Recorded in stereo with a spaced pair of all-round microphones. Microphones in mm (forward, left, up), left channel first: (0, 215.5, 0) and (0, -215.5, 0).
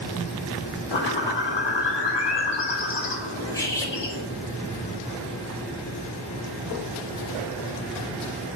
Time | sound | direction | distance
0.9 | a bird | 70° left (ahead or behind) | 0.7 m
3.5 | cutlery clinking | 10° left (ahead or behind) | 0.6 m